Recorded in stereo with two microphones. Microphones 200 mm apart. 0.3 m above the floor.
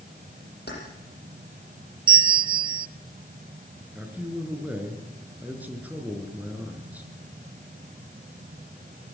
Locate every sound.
0.7 s keys jangling: 60° left (ahead or behind), 8 m
2.1 s a bell: 25° right (ahead or behind), 0.5 m
4.0 s a man speaking: 10° right (ahead or behind), 4.5 m